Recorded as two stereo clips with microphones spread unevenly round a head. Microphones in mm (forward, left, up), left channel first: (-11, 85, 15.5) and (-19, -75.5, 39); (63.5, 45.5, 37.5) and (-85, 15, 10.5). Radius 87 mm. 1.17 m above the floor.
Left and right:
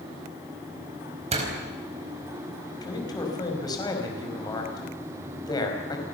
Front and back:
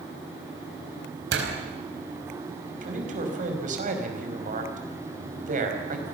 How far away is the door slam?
About 4.5 m.